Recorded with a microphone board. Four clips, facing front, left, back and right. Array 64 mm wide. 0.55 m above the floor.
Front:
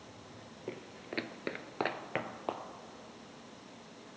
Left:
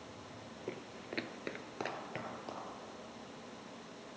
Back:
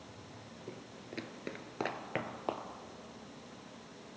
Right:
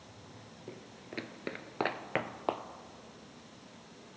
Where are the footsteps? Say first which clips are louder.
Left 3 dB, front 6 dB; 40° left, 0.7 m; by 2.6 s 90° right, 0.9 m.